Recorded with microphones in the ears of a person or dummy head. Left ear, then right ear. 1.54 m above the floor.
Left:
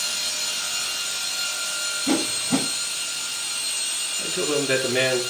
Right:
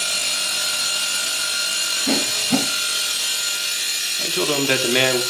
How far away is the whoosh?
About 4.5 m.